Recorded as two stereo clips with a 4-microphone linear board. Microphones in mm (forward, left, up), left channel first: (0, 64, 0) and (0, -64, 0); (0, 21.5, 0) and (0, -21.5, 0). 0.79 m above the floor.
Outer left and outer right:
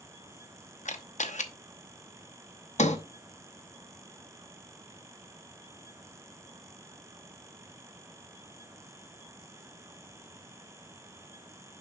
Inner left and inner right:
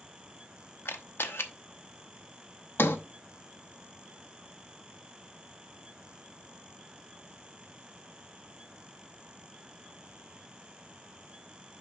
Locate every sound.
0.8 s a camera shutter: 70° left (ahead or behind), 0.9 m
2.8 s a sliding door: 65° left (ahead or behind), 0.8 m